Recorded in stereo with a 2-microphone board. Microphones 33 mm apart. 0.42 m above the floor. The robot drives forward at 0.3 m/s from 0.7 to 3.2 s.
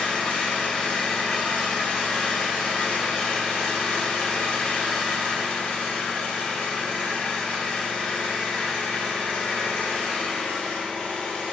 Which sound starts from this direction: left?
An engine running, at 0.0 s.